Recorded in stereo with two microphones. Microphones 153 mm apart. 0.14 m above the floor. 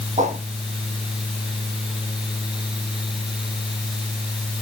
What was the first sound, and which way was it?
A whoosh, 55° right (ahead or behind).